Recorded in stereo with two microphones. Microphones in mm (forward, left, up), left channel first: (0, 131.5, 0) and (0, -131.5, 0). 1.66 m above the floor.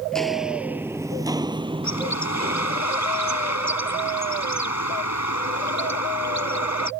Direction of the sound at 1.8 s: 80° left.